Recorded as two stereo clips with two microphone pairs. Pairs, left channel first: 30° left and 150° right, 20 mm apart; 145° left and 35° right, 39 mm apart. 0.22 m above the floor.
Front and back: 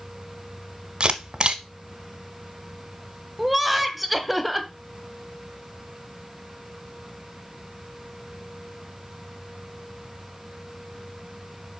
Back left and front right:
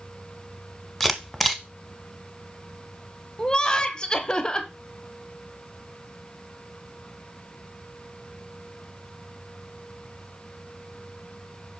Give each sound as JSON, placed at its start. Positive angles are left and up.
{"t": 1.0, "sound": "a camera shutter", "azimuth_deg": -125, "distance_m": 1.1}
{"t": 3.4, "sound": "laughter", "azimuth_deg": 145, "distance_m": 1.0}